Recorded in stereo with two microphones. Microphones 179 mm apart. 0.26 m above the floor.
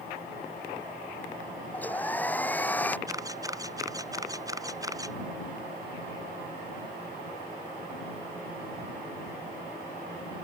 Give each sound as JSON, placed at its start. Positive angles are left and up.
{"t": 1.7, "sound": "a hair dryer", "side_deg": 10}
{"t": 3.1, "sound": "a camera shutter", "side_deg": -20}